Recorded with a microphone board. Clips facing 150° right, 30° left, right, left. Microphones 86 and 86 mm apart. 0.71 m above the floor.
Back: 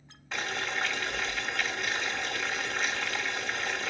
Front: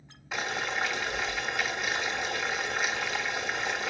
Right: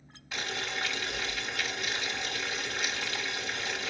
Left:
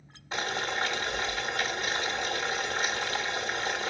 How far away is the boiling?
About 1.1 m.